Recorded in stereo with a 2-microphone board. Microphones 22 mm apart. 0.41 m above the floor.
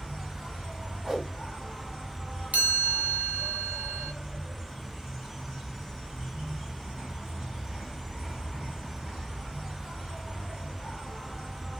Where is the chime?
80° right, 1.4 m.